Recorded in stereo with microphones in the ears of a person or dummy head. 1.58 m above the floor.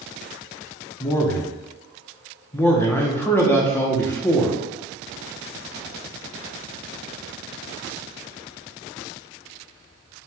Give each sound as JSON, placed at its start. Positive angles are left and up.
{"t": 1.0, "sound": "a man speaking", "side_deg": 10, "distance_m": 0.5}